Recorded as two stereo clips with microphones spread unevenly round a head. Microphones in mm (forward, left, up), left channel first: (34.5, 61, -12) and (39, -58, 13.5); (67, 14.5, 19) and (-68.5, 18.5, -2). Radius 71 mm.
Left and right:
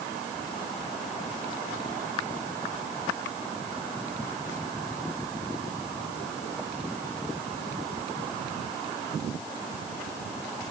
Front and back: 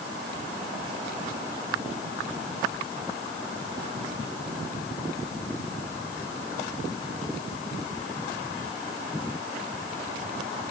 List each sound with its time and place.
Only background noise.